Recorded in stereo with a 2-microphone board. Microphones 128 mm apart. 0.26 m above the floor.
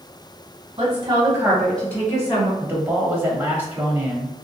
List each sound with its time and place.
0.8 s a woman speaking: 50° right (ahead or behind), 1.7 m; by 2.5 s 40° left (ahead or behind), 1.8 m
2.6 s a man speaking: 15° right (ahead or behind), 0.9 m